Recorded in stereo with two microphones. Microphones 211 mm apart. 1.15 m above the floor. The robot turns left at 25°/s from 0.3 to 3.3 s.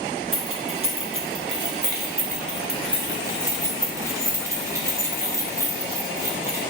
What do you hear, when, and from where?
0.3 s keys jangling: 80° right, 1.1 m; by 6.6 s 15° right (ahead or behind), 1.1 m